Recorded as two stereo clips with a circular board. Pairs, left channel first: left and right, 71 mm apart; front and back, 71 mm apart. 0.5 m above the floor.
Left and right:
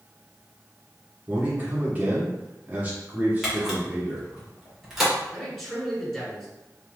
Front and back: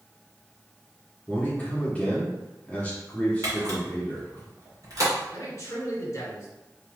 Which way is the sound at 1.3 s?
50° right.